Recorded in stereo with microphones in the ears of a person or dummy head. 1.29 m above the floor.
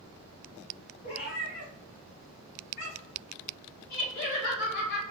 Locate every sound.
1.0 s a cat meowing: 25° left (ahead or behind), 1.4 m; by 3.2 s 55° left (ahead or behind), 3 m
3.9 s laughter: 65° left (ahead or behind), 1.6 m